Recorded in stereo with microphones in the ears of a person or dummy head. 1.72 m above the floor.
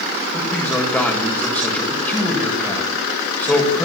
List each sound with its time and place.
0.3 s a man speaking: 10° left (ahead or behind), 7 m